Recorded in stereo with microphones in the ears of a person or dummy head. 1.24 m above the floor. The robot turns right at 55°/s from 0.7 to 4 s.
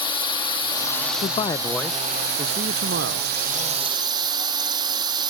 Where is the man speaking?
140° left; by 3.3 s 105° right.